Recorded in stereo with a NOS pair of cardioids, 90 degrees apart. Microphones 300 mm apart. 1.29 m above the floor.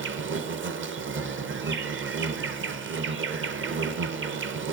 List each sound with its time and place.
0.0 s an insect: 40° right, 0.9 m